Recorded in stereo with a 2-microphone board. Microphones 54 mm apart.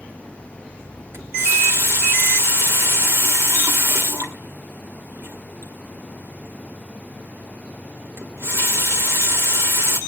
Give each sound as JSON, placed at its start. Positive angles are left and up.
{"t": 1.1, "sound": "a running tap", "side_deg": -55, "distance_m": 2.0}